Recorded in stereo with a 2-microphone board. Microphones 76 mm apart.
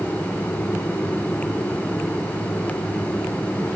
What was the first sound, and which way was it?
Only background noise.